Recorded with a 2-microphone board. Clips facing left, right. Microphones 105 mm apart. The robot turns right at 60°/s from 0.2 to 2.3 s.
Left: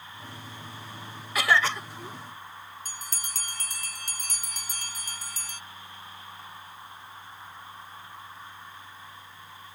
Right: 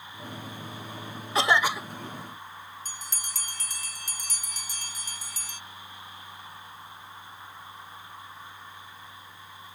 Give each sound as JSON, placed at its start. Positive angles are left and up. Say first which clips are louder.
{"t": 1.4, "sound": "a cough", "louder": "right 1 dB", "azimuth_deg": -35}
{"t": 2.9, "sound": "a bell", "louder": "even", "side_deg": 50}